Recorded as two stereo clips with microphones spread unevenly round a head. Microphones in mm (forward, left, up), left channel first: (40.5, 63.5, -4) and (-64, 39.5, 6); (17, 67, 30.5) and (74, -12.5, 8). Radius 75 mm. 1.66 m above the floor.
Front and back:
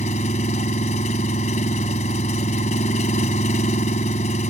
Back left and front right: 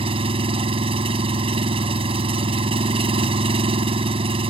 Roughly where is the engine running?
Ahead right.